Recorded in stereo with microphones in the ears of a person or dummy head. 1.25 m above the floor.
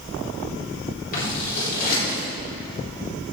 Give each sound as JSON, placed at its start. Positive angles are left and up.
{"t": 1.1, "sound": "scissors", "side_deg": 50, "distance_m": 4.0}